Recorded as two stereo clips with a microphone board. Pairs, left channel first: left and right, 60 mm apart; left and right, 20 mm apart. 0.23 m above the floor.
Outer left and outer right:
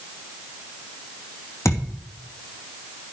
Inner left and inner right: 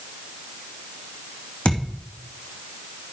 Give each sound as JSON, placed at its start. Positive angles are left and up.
{"t": 1.6, "sound": "a thud", "side_deg": 50, "distance_m": 3.0}